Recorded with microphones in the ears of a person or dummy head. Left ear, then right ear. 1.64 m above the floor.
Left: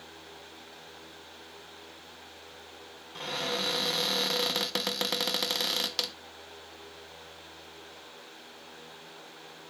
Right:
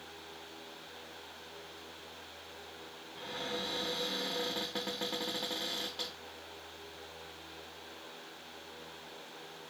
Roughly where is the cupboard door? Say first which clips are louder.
Left 7 dB; left.